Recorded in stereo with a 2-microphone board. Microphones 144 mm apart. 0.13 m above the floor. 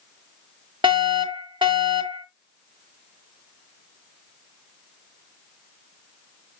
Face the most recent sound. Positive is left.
turn(degrees=-35)  # may be behind; listen again after turning